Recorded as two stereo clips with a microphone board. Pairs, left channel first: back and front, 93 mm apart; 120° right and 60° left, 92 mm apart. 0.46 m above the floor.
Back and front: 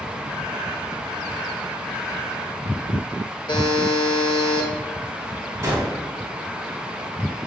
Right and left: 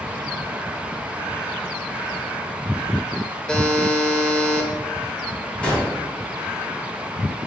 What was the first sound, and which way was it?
A buzzer, 160° left.